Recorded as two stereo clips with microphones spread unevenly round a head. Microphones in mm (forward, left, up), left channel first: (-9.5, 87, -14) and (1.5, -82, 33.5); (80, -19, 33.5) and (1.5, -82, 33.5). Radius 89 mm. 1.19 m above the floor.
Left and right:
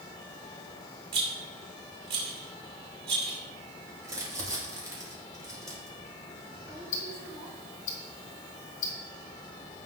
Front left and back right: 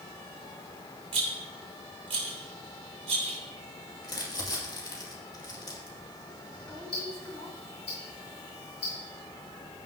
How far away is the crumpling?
About 2.5 m.